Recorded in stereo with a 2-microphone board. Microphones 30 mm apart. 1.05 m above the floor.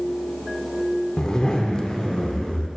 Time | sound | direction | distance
1.2 | a zipper | 30° left (ahead or behind) | 0.7 m